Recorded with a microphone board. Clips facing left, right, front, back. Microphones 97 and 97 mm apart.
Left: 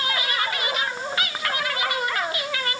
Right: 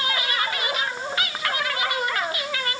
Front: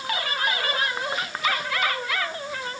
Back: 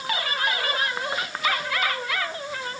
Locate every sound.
Only background noise.